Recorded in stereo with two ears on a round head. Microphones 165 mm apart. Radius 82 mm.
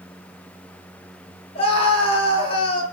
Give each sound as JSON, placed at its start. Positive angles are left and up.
{"t": 1.6, "sound": "a scream", "side_deg": 30, "distance_m": 9.5}